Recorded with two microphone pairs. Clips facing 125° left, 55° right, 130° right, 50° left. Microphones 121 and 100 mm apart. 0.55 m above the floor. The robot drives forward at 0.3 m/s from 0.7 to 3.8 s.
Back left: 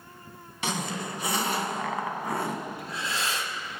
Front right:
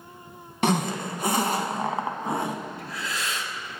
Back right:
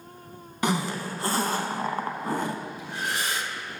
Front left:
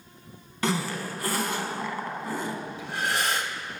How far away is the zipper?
About 0.6 m.